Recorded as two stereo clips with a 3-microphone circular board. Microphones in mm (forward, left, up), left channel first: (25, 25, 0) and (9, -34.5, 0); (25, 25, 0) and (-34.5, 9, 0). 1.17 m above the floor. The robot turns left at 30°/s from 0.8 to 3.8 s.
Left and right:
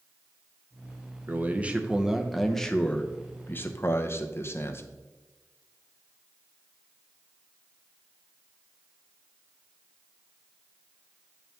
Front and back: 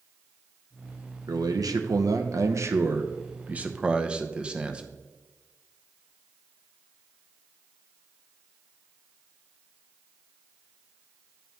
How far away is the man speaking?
About 0.7 m.